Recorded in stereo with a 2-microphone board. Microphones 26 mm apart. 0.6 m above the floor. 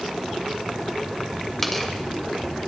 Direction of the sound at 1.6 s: 10° left (ahead or behind).